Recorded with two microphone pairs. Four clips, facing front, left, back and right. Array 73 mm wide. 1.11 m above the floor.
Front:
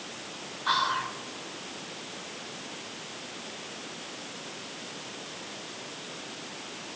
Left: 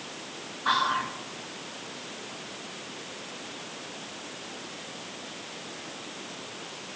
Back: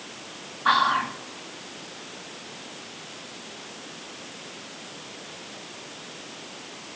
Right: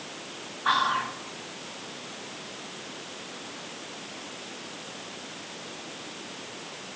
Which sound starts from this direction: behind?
Whispering, at 0.7 s.